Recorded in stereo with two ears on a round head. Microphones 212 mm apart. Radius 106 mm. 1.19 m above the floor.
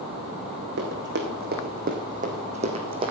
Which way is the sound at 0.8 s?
50° right (ahead or behind).